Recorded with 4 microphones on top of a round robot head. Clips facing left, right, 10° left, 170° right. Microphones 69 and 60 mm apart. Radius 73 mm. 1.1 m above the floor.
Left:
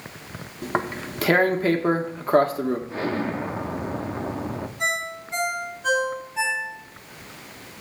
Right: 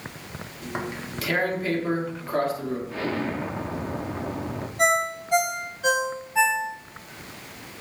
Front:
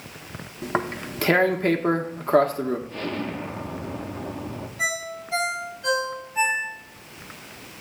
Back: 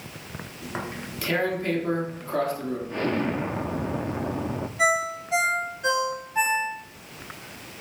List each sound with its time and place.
0.6 s tearing paper: 50° left, 1.2 m
2.9 s an explosion: 150° left, 0.6 m
4.8 s a ringtone: 95° right, 5.5 m